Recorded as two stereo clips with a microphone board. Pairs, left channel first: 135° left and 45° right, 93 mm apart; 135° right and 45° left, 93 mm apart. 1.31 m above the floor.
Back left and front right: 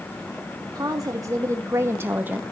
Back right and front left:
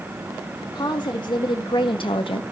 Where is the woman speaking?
95° right, 2 m; by 2.4 s 120° right, 1.1 m.